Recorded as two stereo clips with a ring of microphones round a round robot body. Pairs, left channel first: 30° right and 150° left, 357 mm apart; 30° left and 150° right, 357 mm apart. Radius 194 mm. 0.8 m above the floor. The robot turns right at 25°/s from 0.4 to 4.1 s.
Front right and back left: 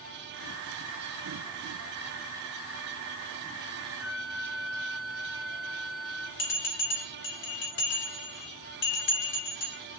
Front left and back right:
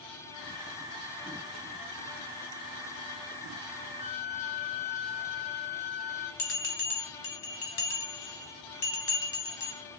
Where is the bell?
20° left, 2.0 m.